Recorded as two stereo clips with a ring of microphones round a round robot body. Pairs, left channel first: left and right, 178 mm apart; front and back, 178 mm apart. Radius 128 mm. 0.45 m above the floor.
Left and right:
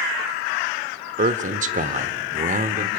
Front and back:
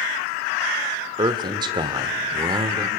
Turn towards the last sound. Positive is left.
turn(degrees=-120)